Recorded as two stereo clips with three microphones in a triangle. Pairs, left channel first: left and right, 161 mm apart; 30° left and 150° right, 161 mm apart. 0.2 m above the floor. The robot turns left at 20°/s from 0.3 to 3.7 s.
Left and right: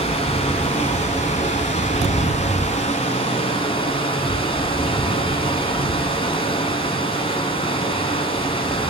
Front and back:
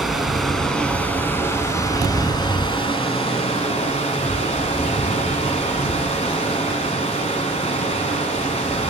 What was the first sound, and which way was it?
Running water, 120° left.